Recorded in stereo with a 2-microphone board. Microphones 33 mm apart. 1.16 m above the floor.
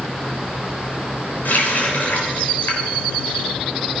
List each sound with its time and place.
1.4 s a running tap: 70° left (ahead or behind), 3 m